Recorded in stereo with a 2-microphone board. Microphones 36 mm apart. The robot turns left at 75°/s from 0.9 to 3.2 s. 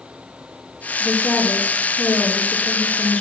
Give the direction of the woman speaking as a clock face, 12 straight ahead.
6 o'clock.